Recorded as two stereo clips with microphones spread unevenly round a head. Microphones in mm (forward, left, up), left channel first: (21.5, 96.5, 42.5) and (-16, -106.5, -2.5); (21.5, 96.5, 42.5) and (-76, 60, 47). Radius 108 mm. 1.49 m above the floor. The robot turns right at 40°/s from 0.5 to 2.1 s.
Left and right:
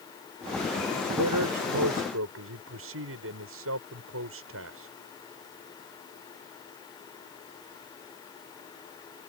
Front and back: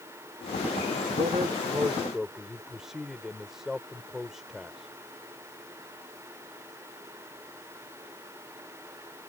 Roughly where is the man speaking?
Right.